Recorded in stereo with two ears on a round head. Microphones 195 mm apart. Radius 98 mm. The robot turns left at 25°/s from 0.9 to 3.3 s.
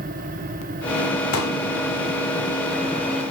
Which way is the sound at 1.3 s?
75° left (ahead or behind).